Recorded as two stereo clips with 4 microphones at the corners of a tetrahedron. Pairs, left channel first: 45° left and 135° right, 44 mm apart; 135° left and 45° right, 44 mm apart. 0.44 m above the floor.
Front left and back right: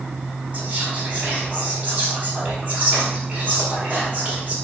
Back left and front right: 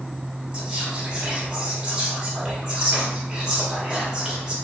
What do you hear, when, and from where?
0.5 s whispering: 105° right, 1.4 m